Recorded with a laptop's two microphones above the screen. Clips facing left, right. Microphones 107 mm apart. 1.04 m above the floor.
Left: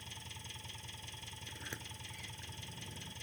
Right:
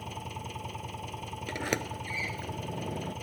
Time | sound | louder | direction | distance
0.0 | an engine running | right 15 dB | 55° right (ahead or behind) | ?
1.5 | a sliding door | right 18 dB | 85° right | ?